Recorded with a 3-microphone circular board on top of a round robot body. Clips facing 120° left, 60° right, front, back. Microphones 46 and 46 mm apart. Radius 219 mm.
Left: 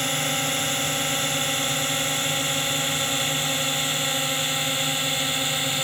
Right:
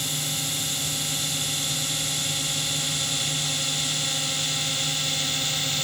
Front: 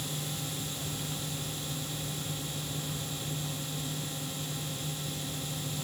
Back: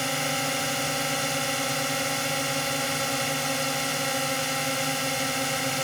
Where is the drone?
165° left; by 5.8 s 170° right.